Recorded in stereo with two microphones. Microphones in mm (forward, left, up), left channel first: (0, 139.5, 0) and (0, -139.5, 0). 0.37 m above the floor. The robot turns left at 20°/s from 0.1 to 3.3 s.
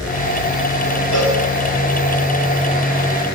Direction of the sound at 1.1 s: 90° left.